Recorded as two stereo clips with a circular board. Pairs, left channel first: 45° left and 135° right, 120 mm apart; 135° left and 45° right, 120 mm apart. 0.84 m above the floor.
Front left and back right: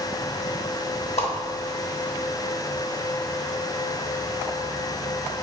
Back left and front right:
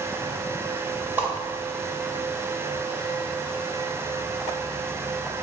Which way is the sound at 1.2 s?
25° left.